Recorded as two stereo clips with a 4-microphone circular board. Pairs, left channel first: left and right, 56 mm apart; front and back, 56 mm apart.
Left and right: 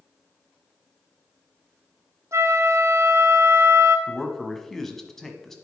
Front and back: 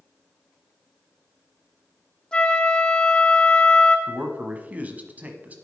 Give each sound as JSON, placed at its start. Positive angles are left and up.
{"t": 2.3, "sound": "a flute", "azimuth_deg": -75, "distance_m": 0.9}
{"t": 4.1, "sound": "a man speaking", "azimuth_deg": 170, "distance_m": 1.1}